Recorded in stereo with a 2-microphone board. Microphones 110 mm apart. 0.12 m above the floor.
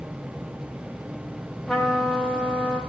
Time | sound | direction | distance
1.7 | a trumpet | 5° left (ahead or behind) | 7 m